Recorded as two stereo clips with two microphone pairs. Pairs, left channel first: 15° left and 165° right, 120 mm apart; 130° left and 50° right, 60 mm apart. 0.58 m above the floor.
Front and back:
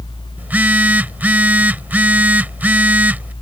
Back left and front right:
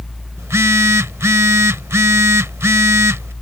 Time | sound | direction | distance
0.4 | a phone buzzing | 90° right | ?